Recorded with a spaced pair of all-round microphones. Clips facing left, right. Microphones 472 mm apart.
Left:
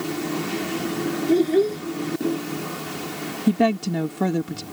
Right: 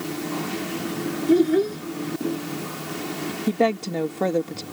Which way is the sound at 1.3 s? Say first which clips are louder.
Right 1 dB; 30° right (ahead or behind).